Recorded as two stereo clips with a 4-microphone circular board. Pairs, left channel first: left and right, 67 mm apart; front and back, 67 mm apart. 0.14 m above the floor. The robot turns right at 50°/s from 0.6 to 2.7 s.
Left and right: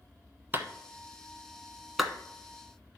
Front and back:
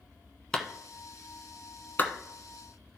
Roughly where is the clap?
Right.